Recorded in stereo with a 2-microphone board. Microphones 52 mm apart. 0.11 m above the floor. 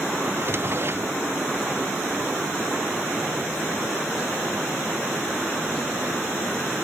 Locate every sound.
0.3 s a drawer: 45° right (ahead or behind)